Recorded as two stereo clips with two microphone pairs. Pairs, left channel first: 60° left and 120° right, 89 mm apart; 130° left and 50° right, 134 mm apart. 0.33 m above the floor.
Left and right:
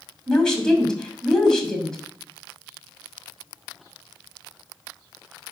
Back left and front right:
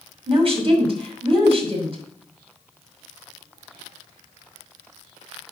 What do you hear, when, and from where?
0.3 s a woman speaking: 20° right, 2.5 m